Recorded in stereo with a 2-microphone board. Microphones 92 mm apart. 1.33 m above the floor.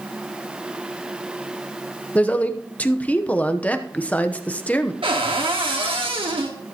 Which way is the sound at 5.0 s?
70° right (ahead or behind).